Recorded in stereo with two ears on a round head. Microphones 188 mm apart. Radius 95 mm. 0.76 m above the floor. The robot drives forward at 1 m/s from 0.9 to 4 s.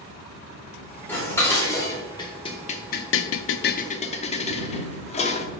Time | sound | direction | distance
1.1 | dishes clattering | 10° left (ahead or behind) | 2.5 m